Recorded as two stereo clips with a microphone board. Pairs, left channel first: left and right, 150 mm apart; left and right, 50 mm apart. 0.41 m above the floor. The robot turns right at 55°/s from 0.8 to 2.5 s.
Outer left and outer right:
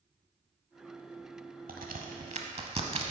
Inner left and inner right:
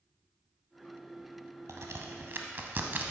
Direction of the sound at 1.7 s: 85° right.